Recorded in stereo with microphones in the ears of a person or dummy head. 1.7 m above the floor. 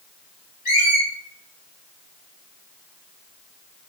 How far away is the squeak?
About 1.5 m.